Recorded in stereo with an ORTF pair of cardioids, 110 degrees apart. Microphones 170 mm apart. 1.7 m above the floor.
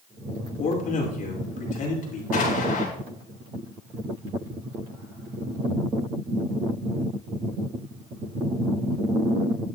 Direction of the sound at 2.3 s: 55° left.